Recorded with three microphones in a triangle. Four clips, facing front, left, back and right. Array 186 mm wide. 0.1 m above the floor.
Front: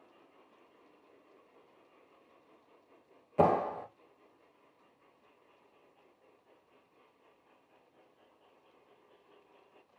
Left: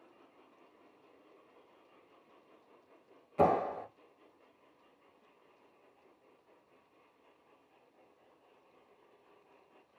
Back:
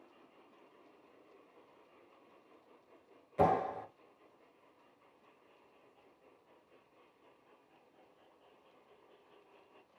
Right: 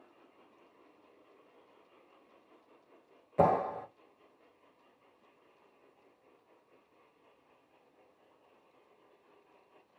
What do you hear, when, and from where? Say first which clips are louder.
3.4 s a clap: right 1 dB, front 3 dB; 50° right, 2 m